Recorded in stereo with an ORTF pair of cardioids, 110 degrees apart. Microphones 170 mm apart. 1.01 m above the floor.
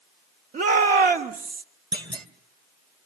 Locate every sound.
0.5 s a shout: 55° right, 3 m; by 1.6 s 60° right, 1.8 m
1.9 s a clunk: 25° right, 2 m